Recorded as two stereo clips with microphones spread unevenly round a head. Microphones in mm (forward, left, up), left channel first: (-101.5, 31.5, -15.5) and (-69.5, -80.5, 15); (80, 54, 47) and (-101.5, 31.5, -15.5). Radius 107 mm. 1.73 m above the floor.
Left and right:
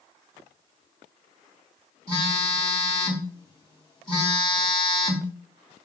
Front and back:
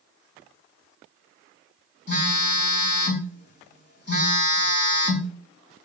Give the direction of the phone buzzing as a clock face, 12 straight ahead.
1 o'clock.